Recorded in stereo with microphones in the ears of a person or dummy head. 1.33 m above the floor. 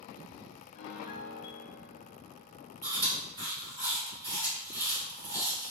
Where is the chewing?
20° right (ahead or behind), 1.4 m.